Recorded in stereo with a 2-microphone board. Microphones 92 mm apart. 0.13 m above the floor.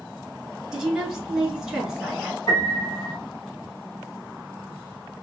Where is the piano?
45° left (ahead or behind), 2 m.